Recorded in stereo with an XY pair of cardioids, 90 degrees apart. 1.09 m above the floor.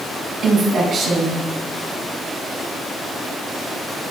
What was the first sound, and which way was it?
A woman speaking, 50° right.